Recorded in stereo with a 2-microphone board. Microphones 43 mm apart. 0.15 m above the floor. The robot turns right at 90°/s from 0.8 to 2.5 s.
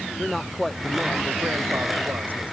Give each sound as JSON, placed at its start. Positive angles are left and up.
{"t": 0.2, "sound": "a man speaking", "azimuth_deg": 180}